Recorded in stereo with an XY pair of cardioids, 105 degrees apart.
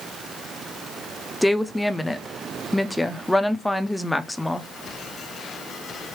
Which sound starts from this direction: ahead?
A woman speaking, at 1.4 s.